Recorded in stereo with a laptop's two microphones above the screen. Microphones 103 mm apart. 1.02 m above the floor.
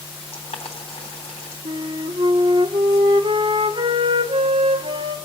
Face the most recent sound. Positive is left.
turn(degrees=-70)  # may be behind; listen again after turning